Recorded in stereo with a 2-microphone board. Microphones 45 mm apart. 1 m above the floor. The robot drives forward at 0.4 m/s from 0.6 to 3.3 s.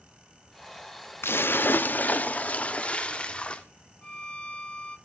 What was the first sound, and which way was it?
A splash, 55° left (ahead or behind).